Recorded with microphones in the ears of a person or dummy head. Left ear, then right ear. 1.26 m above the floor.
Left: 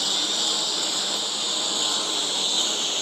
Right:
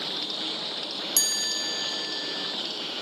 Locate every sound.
0.0 s a lawn mower: 65° left (ahead or behind); by 3.0 s 50° left (ahead or behind)
1.2 s a chime: 60° right (ahead or behind)